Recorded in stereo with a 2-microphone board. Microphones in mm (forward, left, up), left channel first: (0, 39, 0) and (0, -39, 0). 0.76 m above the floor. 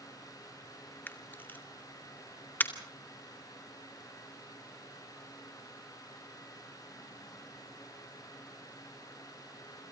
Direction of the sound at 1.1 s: 25° left (ahead or behind).